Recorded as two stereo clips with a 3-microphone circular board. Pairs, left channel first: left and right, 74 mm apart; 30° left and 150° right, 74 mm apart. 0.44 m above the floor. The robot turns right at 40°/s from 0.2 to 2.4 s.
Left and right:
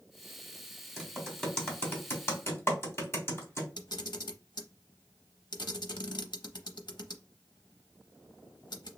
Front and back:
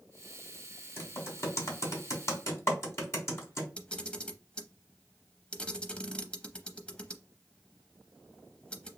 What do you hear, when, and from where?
1.0 s typing on a keyboard: straight ahead, 1.5 m; by 3.7 s 55° left, 1.5 m
3.8 s a camera shutter: 105° left, 0.6 m